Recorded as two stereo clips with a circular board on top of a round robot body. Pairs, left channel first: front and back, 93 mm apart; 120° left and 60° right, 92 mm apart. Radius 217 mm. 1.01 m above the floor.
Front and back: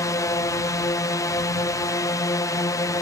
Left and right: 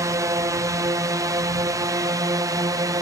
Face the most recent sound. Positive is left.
turn(degrees=-35)